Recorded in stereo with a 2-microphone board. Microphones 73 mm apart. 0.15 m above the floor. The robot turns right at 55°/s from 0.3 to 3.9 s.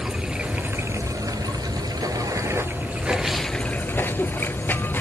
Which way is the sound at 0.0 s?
165° right.